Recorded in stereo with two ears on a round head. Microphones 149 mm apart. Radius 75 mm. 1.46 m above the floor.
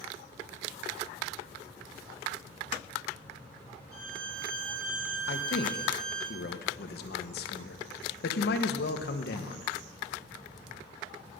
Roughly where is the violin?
Right.